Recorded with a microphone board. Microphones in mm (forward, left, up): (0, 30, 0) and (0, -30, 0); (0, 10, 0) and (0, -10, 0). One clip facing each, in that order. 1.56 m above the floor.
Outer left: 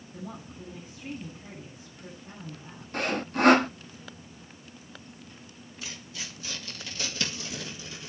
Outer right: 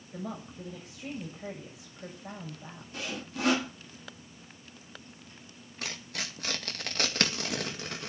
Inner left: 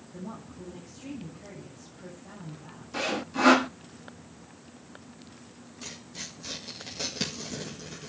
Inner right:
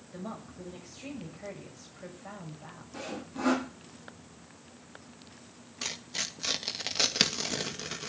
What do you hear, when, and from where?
0.1 s a woman speaking: 85° right, 7.5 m
2.9 s sawing: 50° left (ahead or behind), 0.5 m
5.8 s tearing paper: 60° right (ahead or behind), 1.9 m